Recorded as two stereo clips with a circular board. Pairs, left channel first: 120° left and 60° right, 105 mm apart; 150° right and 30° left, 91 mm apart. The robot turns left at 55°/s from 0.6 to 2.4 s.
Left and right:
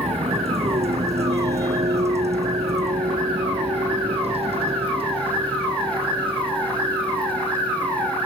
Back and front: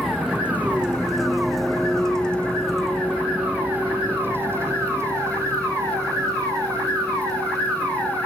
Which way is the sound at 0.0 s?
55° right.